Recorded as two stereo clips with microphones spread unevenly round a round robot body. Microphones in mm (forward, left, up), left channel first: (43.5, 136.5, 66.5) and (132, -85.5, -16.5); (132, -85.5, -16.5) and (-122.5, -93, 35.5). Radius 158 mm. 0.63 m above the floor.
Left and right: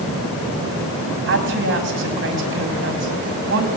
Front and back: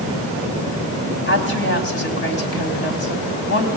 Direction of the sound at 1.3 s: 40° right.